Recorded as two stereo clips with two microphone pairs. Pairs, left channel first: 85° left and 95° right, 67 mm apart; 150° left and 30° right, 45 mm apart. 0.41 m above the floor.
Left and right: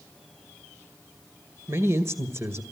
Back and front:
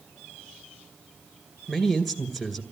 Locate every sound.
1.7 s a man speaking: 115° right, 1.8 m